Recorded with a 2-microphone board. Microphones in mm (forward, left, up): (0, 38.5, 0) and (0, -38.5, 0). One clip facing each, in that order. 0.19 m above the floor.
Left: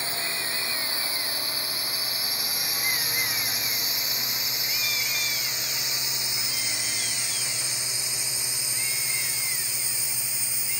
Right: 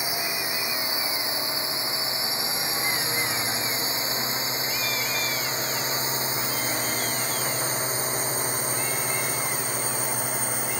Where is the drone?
15° right (ahead or behind); by 10.8 s 50° right (ahead or behind).